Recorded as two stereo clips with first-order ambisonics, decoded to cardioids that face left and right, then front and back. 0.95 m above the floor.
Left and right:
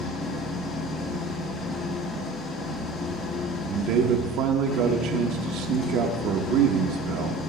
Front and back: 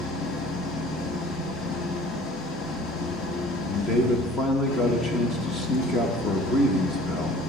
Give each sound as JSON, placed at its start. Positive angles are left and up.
{"t": 0.0, "sound": "an engine running", "azimuth_deg": 30, "distance_m": 1.9}
{"t": 3.7, "sound": "a man speaking", "azimuth_deg": -65, "distance_m": 1.1}